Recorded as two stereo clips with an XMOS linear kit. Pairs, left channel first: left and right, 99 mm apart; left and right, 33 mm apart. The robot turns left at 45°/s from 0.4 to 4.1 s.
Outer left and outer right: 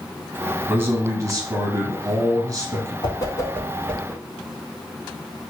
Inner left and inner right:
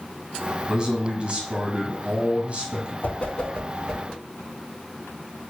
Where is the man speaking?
30° right, 1.2 m; by 2.9 s 130° right, 1.2 m.